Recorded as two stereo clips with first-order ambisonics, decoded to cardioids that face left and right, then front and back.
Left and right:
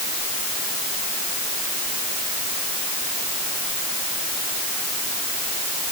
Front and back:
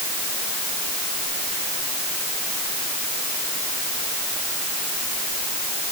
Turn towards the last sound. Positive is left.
No sound to turn to.